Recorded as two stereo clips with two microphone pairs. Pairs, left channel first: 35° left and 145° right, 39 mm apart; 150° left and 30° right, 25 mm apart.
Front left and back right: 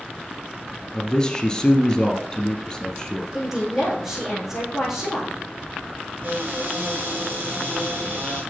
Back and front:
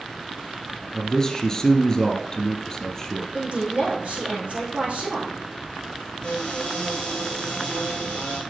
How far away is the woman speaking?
About 5 m.